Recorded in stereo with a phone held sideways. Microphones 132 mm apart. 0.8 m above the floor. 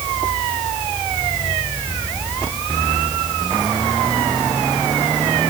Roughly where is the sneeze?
No sneeze in this recording.